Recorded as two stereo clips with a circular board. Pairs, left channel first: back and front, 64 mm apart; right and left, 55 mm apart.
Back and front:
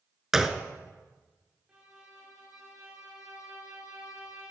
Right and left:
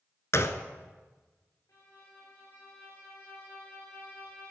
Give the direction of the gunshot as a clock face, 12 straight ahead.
3 o'clock.